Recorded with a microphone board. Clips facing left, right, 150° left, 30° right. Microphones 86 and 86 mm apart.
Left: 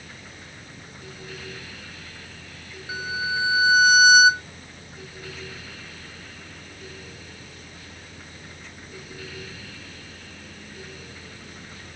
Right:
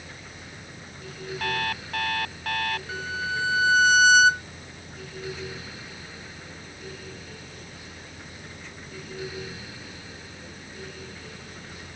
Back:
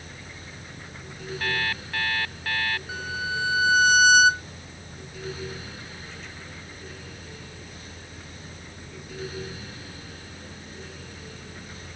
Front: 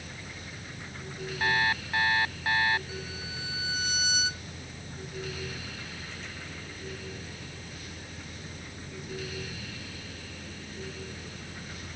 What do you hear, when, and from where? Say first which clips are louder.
1.4 s an alarm clock: right 11 dB, front 2 dB; 100° right
2.9 s a violin: left 2 dB, back 9 dB; 170° left